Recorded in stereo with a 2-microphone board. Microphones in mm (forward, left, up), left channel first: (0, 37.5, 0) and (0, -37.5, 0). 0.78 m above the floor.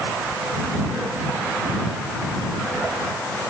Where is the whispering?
No whispering in this recording.